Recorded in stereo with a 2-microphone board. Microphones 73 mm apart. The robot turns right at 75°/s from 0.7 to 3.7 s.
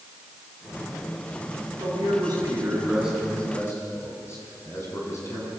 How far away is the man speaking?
About 8 m.